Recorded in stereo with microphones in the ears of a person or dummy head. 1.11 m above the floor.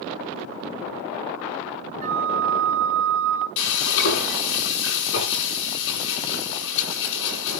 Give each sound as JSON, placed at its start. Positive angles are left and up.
{"t": 2.0, "sound": "a flute", "side_deg": -50, "distance_m": 2.0}
{"t": 3.6, "sound": "frying", "side_deg": 60, "distance_m": 8.0}